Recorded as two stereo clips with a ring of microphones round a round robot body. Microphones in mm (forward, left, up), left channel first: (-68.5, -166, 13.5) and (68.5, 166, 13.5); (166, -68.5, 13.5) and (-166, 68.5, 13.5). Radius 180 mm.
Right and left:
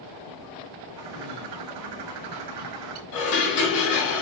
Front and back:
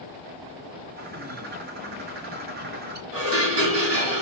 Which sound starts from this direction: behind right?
Dishes clattering, at 3.1 s.